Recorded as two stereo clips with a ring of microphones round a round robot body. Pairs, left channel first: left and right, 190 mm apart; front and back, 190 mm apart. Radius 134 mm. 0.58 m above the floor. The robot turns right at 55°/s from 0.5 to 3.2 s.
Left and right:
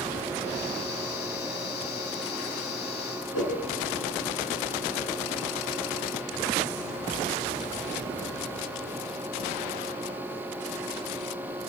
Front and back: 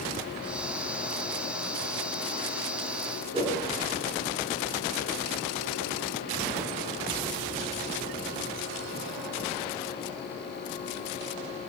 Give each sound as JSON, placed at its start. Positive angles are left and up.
{"t": 3.3, "sound": "a whoosh", "azimuth_deg": 120, "distance_m": 5.5}